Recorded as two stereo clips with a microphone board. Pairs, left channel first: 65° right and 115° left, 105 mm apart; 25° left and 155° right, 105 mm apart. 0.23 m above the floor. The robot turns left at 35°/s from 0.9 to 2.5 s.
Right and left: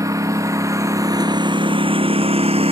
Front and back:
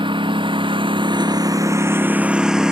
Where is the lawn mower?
170° left; by 2.7 s 120° left.